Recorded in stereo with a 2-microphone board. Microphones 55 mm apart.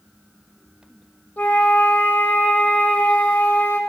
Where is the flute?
30° left (ahead or behind), 1.4 m.